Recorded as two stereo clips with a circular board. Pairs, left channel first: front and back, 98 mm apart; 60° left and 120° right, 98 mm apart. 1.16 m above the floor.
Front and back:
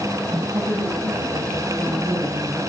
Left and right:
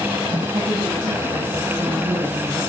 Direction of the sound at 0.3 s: 130° right.